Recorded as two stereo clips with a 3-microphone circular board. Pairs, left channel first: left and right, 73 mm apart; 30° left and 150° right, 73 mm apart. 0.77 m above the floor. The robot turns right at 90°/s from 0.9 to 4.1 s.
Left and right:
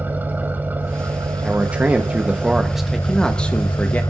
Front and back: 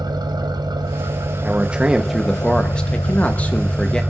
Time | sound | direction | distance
0.0 | an engine running | 155° right | 1.3 m
1.4 | a man speaking | 135° right | 0.9 m